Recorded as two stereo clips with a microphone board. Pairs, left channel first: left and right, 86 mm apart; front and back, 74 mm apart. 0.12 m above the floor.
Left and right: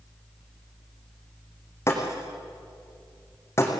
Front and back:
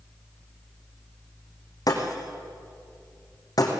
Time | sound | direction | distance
1.9 | breaking glass | 35° left | 4 m